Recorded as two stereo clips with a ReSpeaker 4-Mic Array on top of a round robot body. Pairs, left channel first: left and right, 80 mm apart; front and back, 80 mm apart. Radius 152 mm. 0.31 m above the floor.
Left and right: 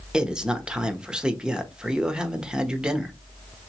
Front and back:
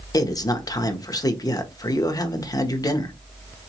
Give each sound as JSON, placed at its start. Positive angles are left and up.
{"t": 0.1, "sound": "a man speaking", "azimuth_deg": -10, "distance_m": 1.2}